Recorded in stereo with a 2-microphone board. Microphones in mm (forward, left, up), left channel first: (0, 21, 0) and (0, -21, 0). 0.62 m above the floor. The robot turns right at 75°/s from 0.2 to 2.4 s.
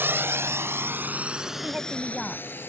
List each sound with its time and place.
0.0 s a drone: 60° right (ahead or behind); by 2.7 s 55° left (ahead or behind)
1.6 s a woman speaking: 40° right; by 2.6 s 20° left